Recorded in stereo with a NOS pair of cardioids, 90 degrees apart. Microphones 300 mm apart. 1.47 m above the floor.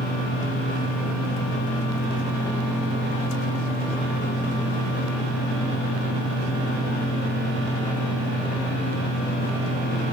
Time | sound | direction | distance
0.0 | a fan | 65° left | 5.5 m